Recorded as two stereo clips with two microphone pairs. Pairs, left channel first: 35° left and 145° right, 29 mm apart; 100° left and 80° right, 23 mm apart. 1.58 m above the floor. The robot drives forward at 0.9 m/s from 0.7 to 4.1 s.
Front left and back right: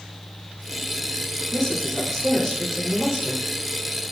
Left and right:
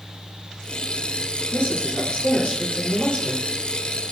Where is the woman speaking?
105° left, 4.5 m; by 3.5 s 125° left, 5.5 m.